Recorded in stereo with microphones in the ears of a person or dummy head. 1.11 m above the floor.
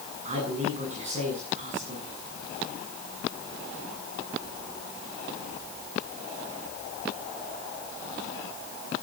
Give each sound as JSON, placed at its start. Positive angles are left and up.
{"t": 0.2, "sound": "a man speaking", "side_deg": -40, "distance_m": 10.0}